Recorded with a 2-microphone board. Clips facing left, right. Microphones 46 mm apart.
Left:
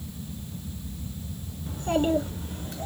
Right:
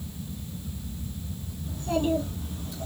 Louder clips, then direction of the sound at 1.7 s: Left 2 dB; 50° left (ahead or behind).